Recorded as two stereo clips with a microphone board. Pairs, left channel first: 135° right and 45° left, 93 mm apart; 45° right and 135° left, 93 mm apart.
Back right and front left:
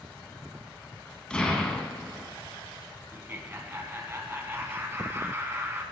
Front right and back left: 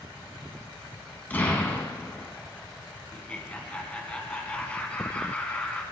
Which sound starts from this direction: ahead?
Laughter, at 3.1 s.